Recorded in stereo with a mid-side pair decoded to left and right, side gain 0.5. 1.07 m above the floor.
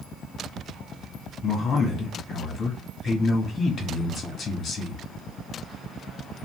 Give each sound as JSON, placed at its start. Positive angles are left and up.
{"t": 1.4, "sound": "a man speaking", "azimuth_deg": 50, "distance_m": 1.6}